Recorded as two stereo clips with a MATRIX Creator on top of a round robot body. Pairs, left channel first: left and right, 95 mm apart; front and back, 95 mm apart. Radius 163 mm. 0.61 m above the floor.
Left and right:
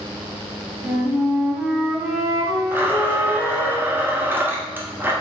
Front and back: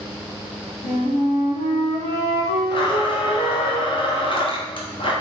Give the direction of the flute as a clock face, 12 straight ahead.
12 o'clock.